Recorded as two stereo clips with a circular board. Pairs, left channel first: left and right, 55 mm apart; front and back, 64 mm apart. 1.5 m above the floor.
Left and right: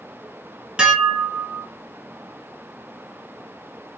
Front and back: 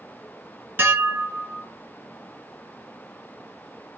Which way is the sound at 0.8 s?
150° right.